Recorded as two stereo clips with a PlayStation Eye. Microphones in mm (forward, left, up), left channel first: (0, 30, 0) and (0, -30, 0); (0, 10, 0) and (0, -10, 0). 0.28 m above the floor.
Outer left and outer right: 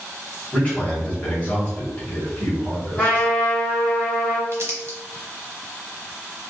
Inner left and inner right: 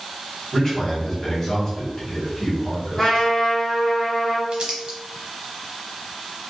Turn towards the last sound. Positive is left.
turn(degrees=-45)  # may be behind; listen again after turning